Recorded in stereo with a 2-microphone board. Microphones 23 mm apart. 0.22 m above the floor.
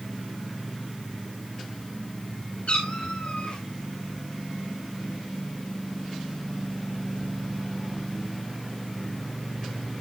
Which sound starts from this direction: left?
A cat meowing, at 2.7 s.